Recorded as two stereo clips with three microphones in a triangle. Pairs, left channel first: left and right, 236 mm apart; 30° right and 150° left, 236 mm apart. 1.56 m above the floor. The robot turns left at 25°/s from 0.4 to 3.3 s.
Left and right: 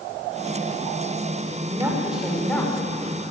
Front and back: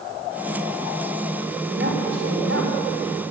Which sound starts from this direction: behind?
A woman speaking, at 1.6 s.